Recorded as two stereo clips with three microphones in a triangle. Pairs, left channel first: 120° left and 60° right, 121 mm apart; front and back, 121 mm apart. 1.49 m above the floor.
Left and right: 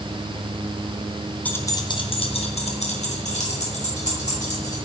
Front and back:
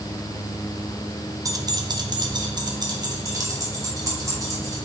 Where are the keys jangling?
175° right, 0.7 m; by 4.8 s 120° left, 3 m.